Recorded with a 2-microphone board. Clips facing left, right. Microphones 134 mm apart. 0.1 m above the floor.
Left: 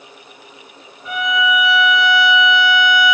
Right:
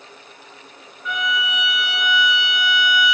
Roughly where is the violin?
Left.